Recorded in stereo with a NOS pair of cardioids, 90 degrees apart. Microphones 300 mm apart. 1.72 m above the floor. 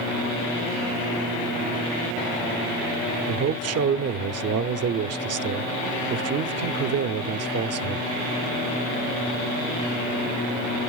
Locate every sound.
3.3 s a man speaking: 50° right, 0.8 m